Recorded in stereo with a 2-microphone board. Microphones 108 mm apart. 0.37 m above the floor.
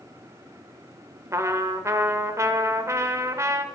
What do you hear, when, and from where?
1.3 s a trumpet: 25° right (ahead or behind), 1.0 m